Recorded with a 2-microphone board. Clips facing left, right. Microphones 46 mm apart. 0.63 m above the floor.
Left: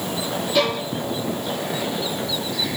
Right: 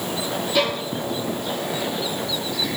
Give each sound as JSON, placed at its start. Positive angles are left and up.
{"t": 0.6, "sound": "a violin", "side_deg": 0, "distance_m": 7.0}